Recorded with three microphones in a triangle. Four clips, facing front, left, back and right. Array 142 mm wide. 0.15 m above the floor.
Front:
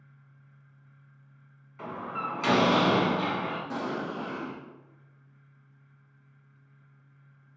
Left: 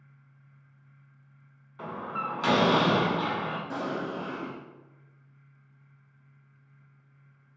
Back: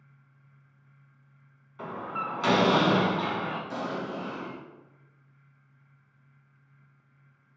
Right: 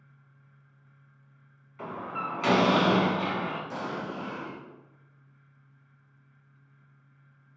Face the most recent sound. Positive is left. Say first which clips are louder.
# left 2 dB, even
turn(degrees=60)